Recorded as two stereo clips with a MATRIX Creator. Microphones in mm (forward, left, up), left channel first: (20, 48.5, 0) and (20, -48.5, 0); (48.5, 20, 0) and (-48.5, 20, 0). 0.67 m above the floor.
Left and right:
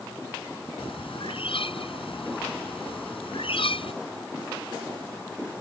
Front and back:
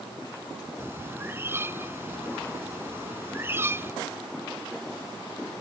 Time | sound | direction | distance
0.8 | a bird | 115° left | ?